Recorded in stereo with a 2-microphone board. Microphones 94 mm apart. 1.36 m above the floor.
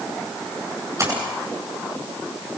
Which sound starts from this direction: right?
A splash, at 1.0 s.